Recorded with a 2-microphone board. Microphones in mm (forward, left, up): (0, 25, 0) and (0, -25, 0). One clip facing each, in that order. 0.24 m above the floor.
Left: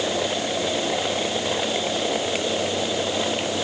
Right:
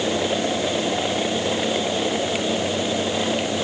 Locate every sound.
Only background noise.